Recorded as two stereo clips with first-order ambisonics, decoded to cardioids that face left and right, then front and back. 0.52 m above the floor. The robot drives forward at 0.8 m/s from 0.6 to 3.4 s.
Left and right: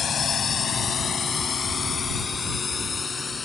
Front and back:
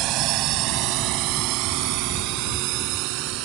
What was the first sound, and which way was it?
A drone, 150° left.